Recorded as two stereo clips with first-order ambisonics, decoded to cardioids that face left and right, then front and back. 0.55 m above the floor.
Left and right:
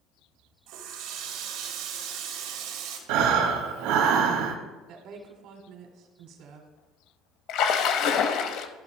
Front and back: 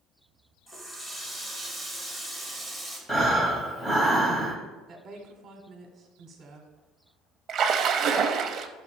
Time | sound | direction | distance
0.7 | a running tap | 80° right | 1.6 m
3.1 | breathing | 80° right | 1.2 m
4.9 | a woman speaking | 120° right | 1.4 m
7.5 | a splash | 125° left | 0.6 m